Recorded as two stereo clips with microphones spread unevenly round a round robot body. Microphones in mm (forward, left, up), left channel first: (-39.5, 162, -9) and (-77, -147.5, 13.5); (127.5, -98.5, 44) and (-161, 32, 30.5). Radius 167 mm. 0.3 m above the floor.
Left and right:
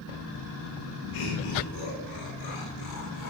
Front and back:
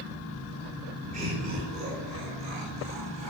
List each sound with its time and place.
1.1 s laughter: 90° left, 5.5 m; by 3.3 s 85° left, 7.5 m